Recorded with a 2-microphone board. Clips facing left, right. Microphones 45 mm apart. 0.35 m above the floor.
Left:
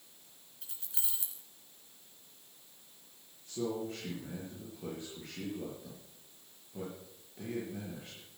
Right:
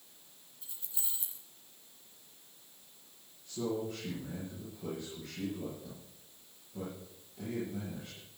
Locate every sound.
0.6 s keys jangling: 75° left (ahead or behind), 2.5 m
3.5 s a man speaking: 35° left (ahead or behind), 7.5 m